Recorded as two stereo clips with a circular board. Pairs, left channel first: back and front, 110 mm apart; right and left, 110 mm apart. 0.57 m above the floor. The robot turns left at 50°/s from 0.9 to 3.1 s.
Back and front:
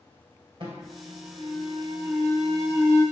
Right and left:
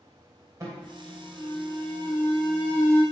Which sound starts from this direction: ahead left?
An alarm, at 0.6 s.